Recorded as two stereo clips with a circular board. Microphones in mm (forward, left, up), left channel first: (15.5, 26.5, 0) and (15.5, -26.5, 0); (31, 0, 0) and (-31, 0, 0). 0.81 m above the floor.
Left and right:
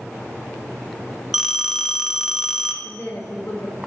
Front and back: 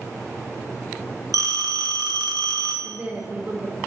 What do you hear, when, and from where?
1.3 s a phone ringing: straight behind, 0.6 m
2.8 s a woman speaking: 145° left, 1.1 m